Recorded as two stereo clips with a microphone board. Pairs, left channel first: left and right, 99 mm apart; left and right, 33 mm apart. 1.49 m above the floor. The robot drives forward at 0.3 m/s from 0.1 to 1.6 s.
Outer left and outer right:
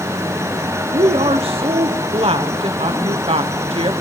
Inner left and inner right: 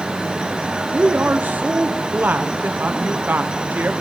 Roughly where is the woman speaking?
Right.